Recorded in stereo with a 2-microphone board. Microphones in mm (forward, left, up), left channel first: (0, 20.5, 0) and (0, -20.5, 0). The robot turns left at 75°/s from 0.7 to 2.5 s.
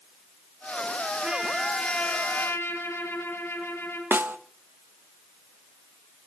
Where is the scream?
I don't hear a scream.